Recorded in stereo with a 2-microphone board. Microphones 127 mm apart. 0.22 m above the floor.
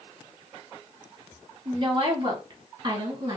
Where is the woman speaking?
35° right (ahead or behind), 2.0 m.